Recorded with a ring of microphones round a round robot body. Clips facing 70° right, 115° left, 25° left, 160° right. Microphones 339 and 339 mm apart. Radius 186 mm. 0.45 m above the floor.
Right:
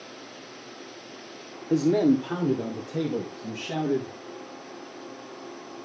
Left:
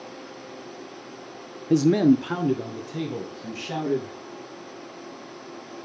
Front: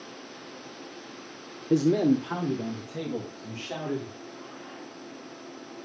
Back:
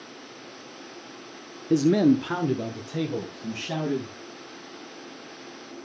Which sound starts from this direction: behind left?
A man speaking, at 1.7 s.